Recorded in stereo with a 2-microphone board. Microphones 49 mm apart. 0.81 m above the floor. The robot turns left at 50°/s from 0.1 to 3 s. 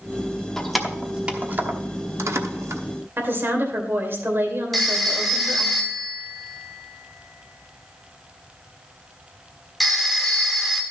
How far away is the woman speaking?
About 2.5 m.